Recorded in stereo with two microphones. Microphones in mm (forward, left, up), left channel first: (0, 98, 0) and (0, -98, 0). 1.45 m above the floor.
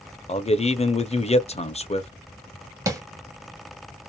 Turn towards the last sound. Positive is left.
turn(degrees=-15)  # may be behind; listen again after turning